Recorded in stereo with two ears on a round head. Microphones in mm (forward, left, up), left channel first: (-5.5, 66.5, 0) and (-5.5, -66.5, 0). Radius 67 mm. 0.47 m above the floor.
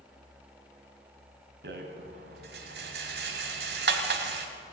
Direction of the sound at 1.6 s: 75° right (ahead or behind).